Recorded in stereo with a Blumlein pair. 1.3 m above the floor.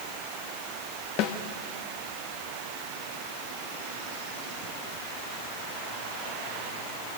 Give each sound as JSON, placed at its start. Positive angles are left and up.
{"t": 1.2, "sound": "a snare drum", "azimuth_deg": 40, "distance_m": 1.6}